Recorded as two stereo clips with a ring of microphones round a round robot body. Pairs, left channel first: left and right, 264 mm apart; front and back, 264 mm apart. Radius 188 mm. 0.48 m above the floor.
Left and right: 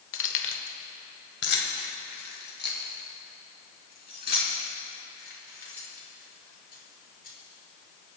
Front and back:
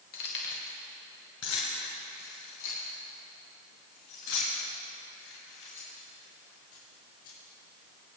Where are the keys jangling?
60° left, 1.1 m; by 7.3 s 35° left, 7 m.